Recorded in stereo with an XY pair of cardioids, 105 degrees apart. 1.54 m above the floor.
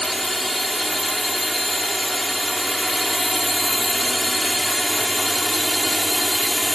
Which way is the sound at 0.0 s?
Straight ahead.